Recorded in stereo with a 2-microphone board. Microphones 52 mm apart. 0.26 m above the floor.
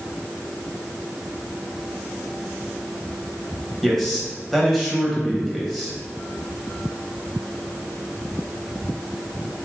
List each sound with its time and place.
3.8 s a man speaking: centre (ahead or behind), 1.0 m